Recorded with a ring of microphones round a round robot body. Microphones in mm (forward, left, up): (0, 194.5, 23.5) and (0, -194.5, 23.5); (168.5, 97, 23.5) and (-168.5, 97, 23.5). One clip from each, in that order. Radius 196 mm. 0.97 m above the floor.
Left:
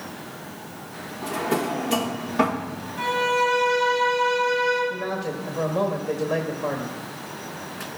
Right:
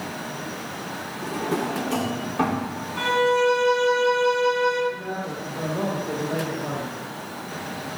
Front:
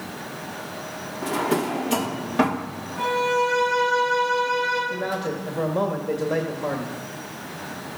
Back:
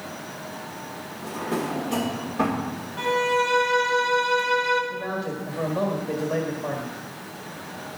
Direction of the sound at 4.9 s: 50° left.